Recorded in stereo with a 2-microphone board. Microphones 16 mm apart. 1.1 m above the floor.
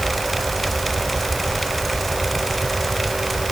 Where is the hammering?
No hammering in this recording.